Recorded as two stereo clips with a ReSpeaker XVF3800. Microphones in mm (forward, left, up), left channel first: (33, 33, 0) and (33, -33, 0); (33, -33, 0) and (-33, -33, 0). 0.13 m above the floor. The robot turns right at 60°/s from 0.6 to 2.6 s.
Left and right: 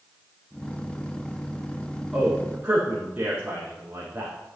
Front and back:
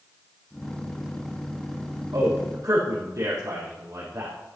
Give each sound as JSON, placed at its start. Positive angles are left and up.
{"t": 2.1, "sound": "a man speaking", "azimuth_deg": 180, "distance_m": 4.5}